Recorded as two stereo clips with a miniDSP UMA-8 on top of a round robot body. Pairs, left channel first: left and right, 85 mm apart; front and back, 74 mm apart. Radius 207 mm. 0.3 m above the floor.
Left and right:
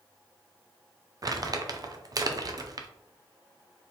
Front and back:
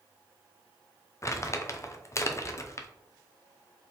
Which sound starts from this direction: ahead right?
Crumpling, at 1.2 s.